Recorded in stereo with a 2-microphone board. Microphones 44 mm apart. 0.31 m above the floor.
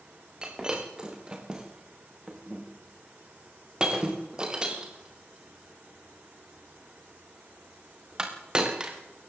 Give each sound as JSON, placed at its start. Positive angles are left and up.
{"t": 0.4, "sound": "breaking glass", "side_deg": -15, "distance_m": 5.0}